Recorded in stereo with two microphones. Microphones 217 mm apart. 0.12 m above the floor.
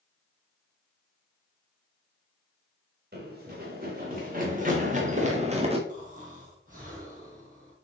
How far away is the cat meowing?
I don't hear a cat meowing.